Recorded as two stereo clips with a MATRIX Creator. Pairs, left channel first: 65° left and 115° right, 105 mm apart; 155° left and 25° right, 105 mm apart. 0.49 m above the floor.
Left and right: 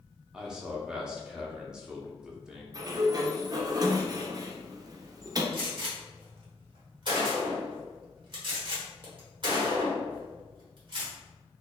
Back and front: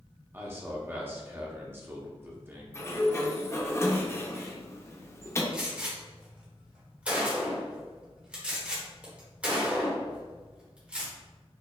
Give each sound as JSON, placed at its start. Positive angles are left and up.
{"t": 0.3, "sound": "a man speaking", "azimuth_deg": -40, "distance_m": 0.7}
{"t": 2.7, "sound": "a sliding door", "azimuth_deg": -150, "distance_m": 0.5}
{"t": 5.5, "sound": "a gunshot", "azimuth_deg": -100, "distance_m": 1.4}